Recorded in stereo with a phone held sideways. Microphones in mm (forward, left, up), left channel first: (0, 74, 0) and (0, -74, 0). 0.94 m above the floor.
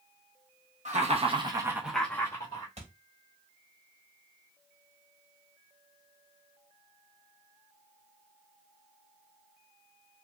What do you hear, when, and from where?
0.8 s laughter: 55° right (ahead or behind), 1.1 m; by 2.7 s 35° left (ahead or behind), 1.0 m
2.8 s a thud: 50° right (ahead or behind), 1.1 m